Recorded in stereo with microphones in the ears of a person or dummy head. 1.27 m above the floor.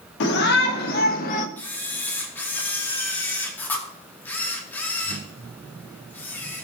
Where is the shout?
60° left (ahead or behind), 2 m; by 1.5 s 40° left (ahead or behind), 1.4 m.